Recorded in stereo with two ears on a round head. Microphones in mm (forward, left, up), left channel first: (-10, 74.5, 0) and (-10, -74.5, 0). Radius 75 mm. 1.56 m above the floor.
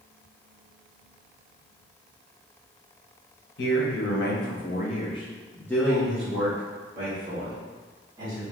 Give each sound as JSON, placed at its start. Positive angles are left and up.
{"t": 3.6, "sound": "a man speaking", "side_deg": 70, "distance_m": 1.2}